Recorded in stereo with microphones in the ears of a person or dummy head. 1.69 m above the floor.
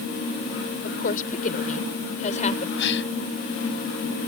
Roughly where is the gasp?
Left.